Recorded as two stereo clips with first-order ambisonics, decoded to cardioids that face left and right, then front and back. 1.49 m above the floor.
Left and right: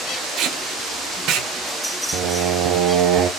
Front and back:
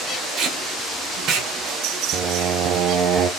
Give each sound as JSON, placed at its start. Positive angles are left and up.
{"t": 0.4, "sound": "tape being pulled", "azimuth_deg": -130, "distance_m": 1.6}
{"t": 2.1, "sound": "singing", "azimuth_deg": -135, "distance_m": 0.9}